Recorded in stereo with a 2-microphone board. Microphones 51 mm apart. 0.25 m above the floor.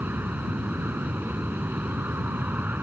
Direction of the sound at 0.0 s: 40° right (ahead or behind).